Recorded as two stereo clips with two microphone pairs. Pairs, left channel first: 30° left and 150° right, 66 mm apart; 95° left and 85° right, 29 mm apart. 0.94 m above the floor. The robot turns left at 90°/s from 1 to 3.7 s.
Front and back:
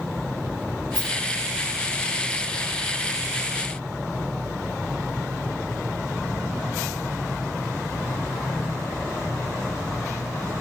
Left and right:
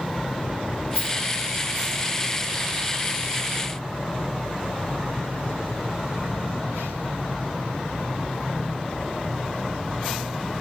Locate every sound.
0.9 s a rattle: 120° right, 5 m; by 1.1 s 130° right, 5 m